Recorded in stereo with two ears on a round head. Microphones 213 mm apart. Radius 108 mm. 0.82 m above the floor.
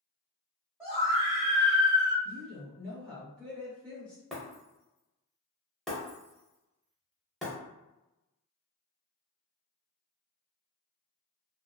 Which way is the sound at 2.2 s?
5° left (ahead or behind).